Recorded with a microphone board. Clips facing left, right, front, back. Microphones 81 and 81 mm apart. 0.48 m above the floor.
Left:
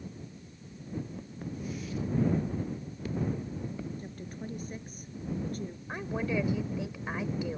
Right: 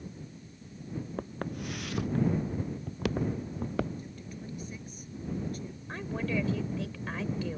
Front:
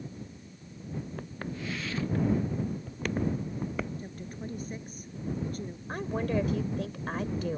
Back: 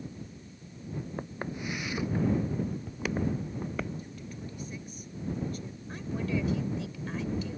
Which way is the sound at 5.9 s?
20° left.